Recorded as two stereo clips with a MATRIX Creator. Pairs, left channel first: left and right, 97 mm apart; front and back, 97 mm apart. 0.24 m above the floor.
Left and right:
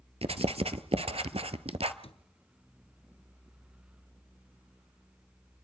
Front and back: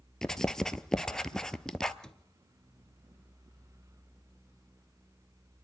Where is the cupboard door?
85° left, 1.2 m.